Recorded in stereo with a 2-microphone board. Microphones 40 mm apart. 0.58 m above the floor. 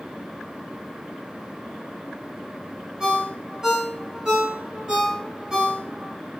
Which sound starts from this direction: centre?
A ringtone, at 3.0 s.